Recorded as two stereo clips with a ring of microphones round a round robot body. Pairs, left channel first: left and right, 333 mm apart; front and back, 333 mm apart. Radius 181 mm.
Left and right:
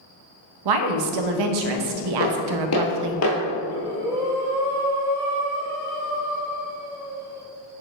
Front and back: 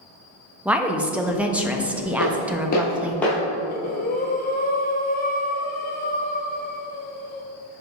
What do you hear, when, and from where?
0.7 s a woman speaking: 95° right, 0.7 m
2.2 s footsteps: 45° left, 1.5 m; by 3.4 s 95° left, 1.1 m
3.7 s breathing: 20° right, 0.6 m